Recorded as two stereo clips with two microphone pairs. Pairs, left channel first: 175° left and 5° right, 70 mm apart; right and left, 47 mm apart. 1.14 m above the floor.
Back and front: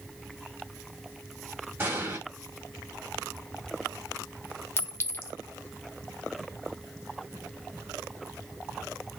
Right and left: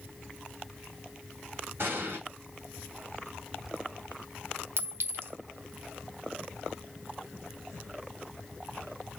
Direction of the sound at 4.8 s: 120° left.